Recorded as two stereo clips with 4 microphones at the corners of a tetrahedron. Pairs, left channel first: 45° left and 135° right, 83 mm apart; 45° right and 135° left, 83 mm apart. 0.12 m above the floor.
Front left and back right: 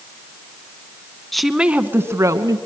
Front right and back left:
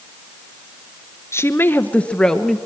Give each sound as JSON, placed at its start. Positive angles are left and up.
{"t": 1.3, "sound": "a woman speaking", "azimuth_deg": -40, "distance_m": 1.2}